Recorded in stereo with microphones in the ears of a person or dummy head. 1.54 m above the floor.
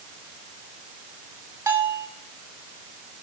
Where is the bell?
15° right (ahead or behind), 1.4 m.